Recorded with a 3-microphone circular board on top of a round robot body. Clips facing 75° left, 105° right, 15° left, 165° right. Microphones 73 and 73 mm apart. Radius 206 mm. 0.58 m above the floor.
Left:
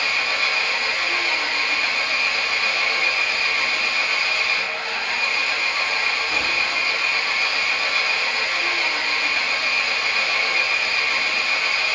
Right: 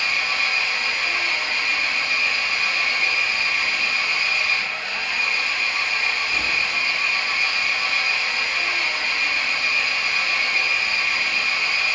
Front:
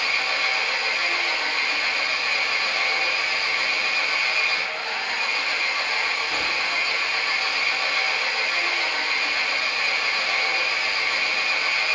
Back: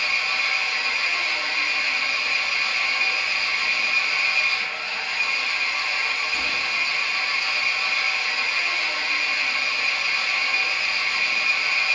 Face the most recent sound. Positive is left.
turn(degrees=40)